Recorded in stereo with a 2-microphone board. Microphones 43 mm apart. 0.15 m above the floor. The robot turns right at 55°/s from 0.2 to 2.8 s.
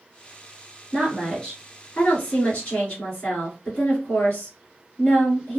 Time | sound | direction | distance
0.9 | a woman speaking | 10° right | 1.5 m